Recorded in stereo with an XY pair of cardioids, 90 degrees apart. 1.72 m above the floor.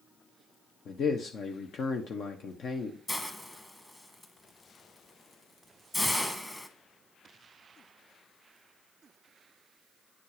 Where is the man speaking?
70° left, 1.3 m.